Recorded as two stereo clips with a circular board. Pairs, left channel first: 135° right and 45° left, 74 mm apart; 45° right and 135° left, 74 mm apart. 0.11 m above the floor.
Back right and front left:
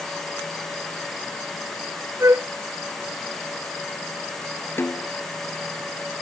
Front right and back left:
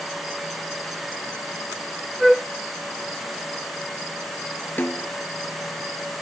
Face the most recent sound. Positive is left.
turn(degrees=-95)